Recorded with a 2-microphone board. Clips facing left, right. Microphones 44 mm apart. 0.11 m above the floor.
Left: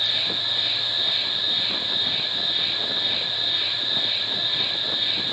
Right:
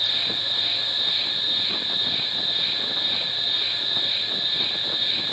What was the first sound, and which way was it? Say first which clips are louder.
An insect: left 1 dB; 25° left (ahead or behind).